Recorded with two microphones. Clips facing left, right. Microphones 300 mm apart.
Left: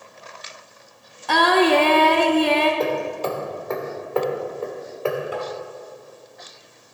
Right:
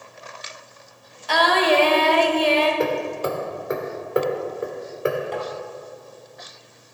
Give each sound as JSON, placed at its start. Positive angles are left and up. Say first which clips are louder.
{"t": 1.3, "sound": "singing", "louder": "left 3 dB", "side_deg": 60, "distance_m": 1.0}
{"t": 2.8, "sound": "hammering", "louder": "even", "side_deg": -20, "distance_m": 1.6}
{"t": 5.3, "sound": "tapping", "louder": "even", "side_deg": 10, "distance_m": 2.0}